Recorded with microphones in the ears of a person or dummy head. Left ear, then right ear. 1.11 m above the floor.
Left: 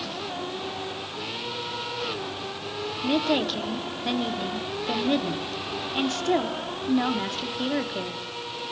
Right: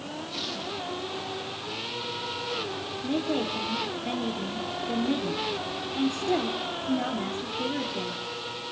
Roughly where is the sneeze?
I don't hear a sneeze.